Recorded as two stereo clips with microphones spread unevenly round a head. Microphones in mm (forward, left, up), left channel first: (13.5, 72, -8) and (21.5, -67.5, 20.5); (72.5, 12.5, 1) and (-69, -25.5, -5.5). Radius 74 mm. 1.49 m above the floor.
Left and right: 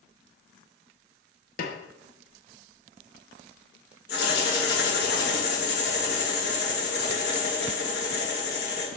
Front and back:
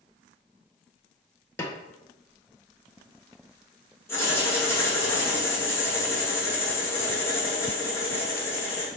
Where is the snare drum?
80° left, 1.2 m.